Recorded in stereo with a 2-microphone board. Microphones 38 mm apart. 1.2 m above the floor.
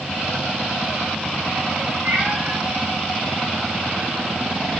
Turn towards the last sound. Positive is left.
turn(degrees=-30)  # may be behind; listen again after turning